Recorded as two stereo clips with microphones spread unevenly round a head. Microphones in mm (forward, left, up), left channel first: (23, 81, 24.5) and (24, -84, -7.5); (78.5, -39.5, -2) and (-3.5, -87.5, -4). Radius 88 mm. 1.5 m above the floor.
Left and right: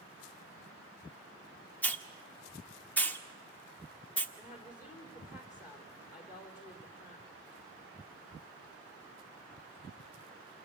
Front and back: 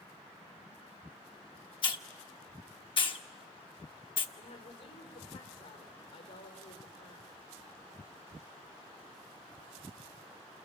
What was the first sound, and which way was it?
A hiss, 20° left.